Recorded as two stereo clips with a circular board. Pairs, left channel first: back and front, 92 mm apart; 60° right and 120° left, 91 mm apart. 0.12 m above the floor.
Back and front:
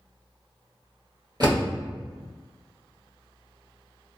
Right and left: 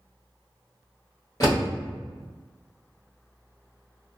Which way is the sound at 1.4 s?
20° right.